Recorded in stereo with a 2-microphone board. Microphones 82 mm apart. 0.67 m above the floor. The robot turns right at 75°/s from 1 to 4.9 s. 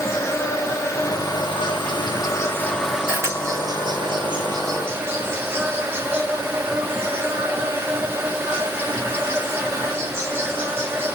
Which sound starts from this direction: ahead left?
An insect, at 0.0 s.